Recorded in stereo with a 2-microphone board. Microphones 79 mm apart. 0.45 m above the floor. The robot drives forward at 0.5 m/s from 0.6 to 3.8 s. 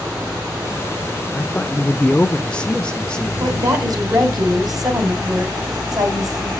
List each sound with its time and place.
1.3 s a man speaking: 20° left (ahead or behind), 0.7 m; by 3.7 s 10° left (ahead or behind), 1.4 m
3.4 s a woman speaking: 50° right (ahead or behind), 3 m; by 6.5 s 55° right (ahead or behind), 2.5 m